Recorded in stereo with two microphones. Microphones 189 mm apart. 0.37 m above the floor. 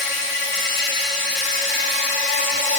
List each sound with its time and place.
0.0 s an insect: 70° left (ahead or behind), 1.9 m